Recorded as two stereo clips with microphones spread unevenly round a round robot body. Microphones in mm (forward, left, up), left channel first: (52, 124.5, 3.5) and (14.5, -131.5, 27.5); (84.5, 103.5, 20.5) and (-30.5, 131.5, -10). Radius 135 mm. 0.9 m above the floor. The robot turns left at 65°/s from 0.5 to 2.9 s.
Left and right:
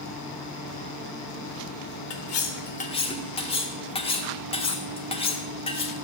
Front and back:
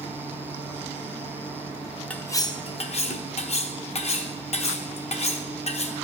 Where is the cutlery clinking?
65° left, 1.0 m; by 5.9 s 10° left, 1.0 m.